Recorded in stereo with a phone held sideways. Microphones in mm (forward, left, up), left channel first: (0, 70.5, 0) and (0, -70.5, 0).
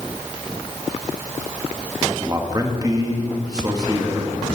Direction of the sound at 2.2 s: 30° right (ahead or behind).